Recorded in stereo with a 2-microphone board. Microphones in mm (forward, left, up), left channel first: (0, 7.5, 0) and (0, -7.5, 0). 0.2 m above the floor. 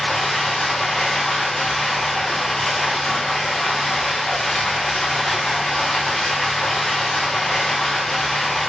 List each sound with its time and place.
0.0 s running water: 65° left (ahead or behind), 1.6 m